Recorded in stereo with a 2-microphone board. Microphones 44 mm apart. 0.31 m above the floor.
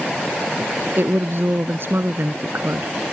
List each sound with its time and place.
1.0 s a woman speaking: 55° right (ahead or behind)